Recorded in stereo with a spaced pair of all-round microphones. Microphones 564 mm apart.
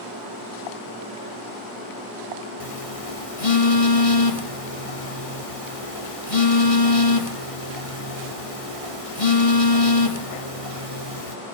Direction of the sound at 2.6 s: 70° left (ahead or behind).